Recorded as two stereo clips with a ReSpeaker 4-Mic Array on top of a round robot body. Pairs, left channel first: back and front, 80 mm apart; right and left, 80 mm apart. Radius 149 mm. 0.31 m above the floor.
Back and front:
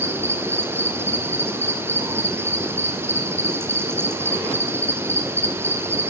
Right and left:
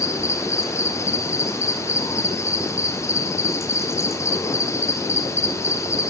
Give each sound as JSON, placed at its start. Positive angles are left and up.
{"t": 0.0, "sound": "an insect", "azimuth_deg": -50, "distance_m": 2.5}